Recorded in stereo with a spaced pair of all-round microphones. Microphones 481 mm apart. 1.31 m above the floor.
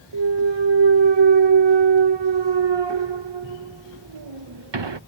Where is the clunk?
60° right (ahead or behind).